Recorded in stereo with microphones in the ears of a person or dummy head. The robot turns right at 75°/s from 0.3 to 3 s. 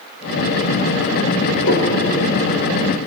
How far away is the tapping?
About 7.5 m.